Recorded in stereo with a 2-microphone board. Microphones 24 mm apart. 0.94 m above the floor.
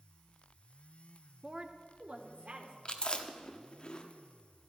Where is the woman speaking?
20° right (ahead or behind), 1.1 m; by 2.8 s 65° right (ahead or behind), 2.5 m.